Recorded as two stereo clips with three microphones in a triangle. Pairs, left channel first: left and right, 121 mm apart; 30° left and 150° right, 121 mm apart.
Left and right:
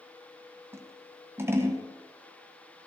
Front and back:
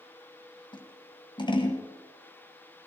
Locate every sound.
0.7 s scissors: 20° right, 1.9 m